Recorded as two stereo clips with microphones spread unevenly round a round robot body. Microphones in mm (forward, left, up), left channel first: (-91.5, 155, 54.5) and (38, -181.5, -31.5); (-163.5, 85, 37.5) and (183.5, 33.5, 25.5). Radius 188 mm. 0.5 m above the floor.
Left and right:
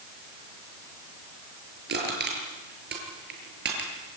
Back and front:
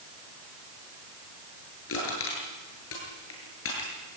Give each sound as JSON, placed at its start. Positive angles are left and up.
{"t": 1.9, "sound": "crushing", "azimuth_deg": -130, "distance_m": 8.5}